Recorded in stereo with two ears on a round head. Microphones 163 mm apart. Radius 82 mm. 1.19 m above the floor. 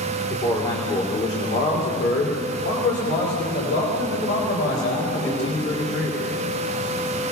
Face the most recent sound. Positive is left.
turn(degrees=90)